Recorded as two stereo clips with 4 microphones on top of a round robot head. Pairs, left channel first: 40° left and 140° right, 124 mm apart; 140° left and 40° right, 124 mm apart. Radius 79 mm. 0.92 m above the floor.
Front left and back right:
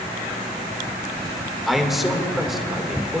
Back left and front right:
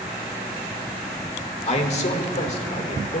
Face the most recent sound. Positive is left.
turn(degrees=130)